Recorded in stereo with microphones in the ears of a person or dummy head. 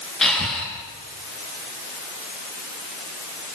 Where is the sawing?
No sawing in this recording.